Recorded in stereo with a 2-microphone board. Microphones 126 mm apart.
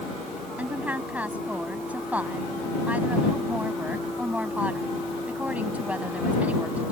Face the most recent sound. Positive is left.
turn(degrees=-10)  # may be behind; listen again after turning